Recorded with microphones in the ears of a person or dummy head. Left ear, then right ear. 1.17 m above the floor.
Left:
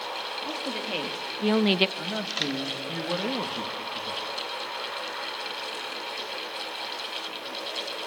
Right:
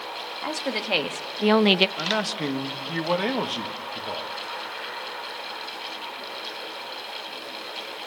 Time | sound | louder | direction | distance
0.4 | a woman speaking | right 3 dB | 55° right (ahead or behind) | 2.5 m
2.0 | a man speaking | right 4 dB | 65° right (ahead or behind) | 2.0 m